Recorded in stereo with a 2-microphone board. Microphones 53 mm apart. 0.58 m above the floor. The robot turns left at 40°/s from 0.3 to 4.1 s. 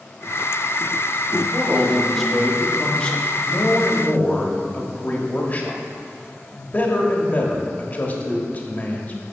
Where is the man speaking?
150° right, 1.2 m; by 9.2 s 100° left, 1.2 m.